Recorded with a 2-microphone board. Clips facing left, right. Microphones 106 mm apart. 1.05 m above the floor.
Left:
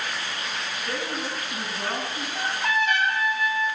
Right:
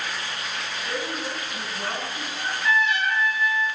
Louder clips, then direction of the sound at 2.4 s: Right 2 dB; 50° left (ahead or behind).